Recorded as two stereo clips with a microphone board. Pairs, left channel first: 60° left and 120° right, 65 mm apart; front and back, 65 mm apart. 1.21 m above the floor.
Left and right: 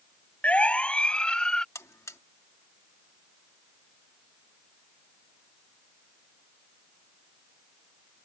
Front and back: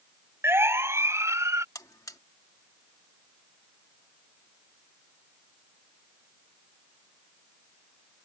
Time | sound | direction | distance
0.4 | a siren | 130° left | ?
1.8 | a buzzer | 25° left | ?